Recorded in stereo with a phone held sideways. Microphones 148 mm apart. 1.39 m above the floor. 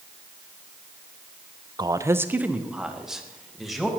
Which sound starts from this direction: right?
A man speaking, at 1.8 s.